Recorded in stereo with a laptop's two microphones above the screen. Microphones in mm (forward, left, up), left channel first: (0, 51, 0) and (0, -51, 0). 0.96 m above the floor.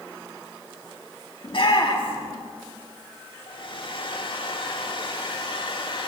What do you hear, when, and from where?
1.4 s a shout: 55° left (ahead or behind), 2 m
3.5 s a hair dryer: 55° left (ahead or behind), 2.5 m